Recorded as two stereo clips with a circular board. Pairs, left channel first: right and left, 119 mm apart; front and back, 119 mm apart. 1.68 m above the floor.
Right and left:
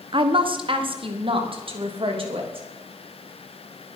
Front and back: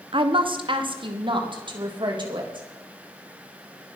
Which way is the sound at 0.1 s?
135° left.